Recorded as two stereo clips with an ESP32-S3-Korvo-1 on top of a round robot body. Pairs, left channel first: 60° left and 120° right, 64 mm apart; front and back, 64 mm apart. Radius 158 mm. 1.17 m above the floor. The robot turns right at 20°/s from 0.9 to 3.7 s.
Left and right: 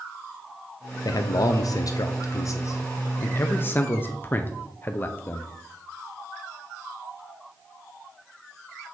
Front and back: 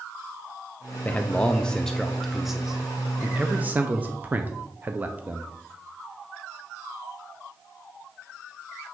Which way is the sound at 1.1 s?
65° left.